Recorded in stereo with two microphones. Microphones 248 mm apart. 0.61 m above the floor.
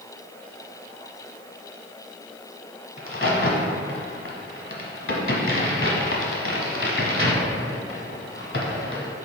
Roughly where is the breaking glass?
No breaking glass in this recording.